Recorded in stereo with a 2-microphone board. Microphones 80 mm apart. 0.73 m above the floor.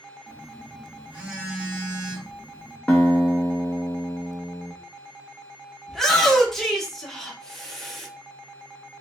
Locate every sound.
0.3 s a phone buzzing: 15° right (ahead or behind), 1.5 m
2.9 s a guitar: 15° left (ahead or behind), 0.7 m
5.9 s a shout: 5° left (ahead or behind), 0.9 m